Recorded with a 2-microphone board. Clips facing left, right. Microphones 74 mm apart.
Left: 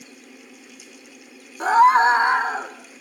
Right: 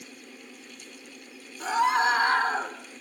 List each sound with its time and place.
1.6 s a scream: 50° left (ahead or behind), 1.1 m; by 2.8 s 5° right (ahead or behind), 1.1 m